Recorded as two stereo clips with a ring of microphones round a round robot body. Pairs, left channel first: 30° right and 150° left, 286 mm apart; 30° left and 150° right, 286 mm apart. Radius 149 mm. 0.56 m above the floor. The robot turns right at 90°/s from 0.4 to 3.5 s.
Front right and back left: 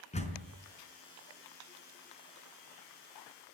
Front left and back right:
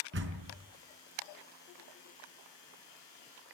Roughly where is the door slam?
Right.